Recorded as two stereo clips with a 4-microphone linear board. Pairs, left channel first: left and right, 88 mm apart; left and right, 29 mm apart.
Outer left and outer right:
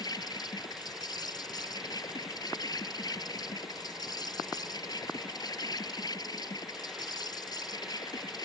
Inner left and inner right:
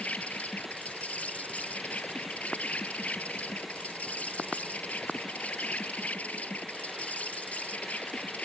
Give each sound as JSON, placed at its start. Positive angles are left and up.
{"t": 0.0, "sound": "an insect", "side_deg": 50}